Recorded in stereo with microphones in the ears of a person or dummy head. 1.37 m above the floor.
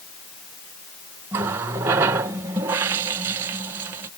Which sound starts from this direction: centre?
A running tap, at 1.3 s.